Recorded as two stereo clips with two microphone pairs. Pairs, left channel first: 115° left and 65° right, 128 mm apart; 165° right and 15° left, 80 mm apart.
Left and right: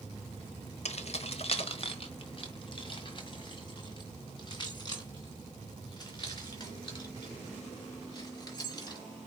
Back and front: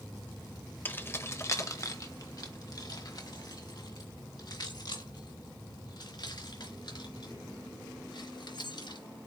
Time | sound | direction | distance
0.8 | keys jangling | 135° left | 0.9 m